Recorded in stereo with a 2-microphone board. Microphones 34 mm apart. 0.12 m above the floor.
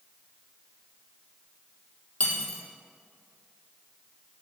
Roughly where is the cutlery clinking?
Left.